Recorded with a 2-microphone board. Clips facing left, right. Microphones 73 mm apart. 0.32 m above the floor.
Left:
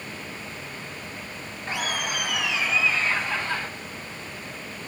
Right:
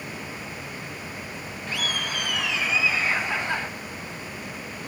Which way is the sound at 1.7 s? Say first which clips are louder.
Left 2 dB; 25° left (ahead or behind).